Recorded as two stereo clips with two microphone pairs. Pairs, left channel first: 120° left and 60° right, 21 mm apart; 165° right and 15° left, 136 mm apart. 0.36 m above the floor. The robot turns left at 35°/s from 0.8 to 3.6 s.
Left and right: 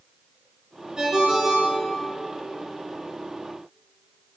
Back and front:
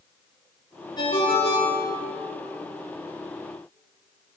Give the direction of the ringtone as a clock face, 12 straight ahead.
4 o'clock.